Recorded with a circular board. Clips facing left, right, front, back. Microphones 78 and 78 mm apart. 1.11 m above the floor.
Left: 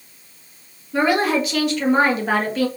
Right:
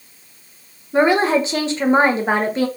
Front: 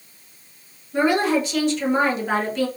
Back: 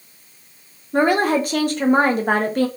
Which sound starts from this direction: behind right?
A woman speaking, at 0.9 s.